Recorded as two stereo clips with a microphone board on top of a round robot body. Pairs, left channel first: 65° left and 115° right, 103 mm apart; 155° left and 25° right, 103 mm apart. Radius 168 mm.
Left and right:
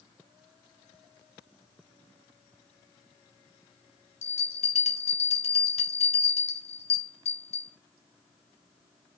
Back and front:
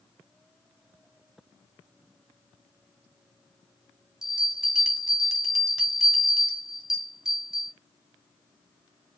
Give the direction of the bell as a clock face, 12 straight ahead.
10 o'clock.